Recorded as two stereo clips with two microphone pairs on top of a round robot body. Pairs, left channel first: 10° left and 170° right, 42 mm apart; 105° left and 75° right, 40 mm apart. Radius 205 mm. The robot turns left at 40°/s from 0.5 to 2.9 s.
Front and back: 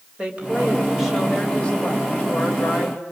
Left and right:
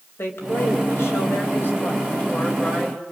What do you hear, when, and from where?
0.2 s a woman speaking: 125° left, 3.5 m; by 3.0 s 30° left, 3.5 m